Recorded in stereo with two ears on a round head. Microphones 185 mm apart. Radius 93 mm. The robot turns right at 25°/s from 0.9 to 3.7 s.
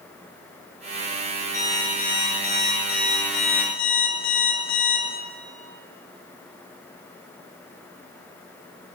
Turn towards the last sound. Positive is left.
turn(degrees=70)